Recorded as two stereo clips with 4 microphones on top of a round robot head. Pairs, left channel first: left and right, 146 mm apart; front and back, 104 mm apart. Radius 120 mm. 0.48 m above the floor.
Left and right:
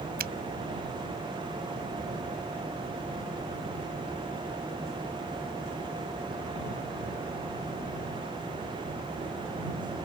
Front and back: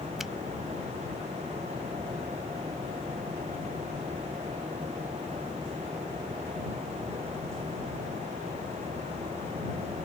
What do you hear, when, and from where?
0.2 s a finger snap: 90° right